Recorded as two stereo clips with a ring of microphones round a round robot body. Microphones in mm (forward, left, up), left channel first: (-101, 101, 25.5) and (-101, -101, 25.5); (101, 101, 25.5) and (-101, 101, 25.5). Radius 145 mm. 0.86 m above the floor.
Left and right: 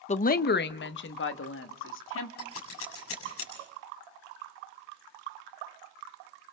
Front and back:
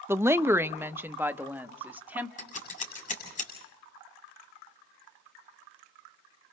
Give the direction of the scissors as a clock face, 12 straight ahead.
10 o'clock.